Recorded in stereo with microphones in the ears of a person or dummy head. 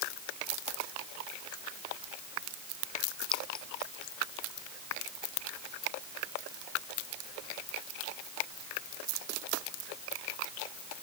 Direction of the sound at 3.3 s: 10° left (ahead or behind).